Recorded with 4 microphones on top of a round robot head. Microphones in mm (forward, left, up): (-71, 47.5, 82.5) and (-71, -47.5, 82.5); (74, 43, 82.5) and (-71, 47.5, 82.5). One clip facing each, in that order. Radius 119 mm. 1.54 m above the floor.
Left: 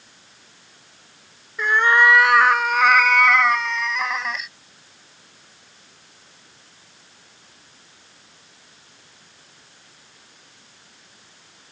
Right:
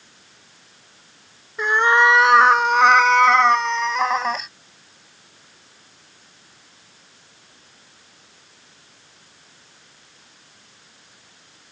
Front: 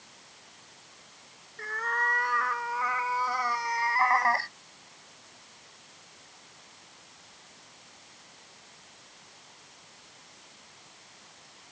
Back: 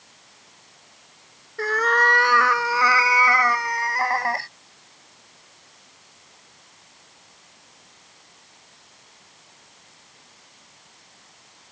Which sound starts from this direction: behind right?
A cat meowing, at 1.6 s.